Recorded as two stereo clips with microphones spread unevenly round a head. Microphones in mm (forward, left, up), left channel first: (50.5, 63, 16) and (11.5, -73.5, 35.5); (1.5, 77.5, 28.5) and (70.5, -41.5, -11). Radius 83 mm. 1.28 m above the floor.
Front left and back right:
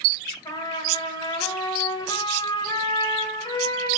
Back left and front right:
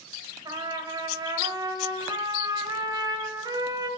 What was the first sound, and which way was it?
A trumpet, 10° left.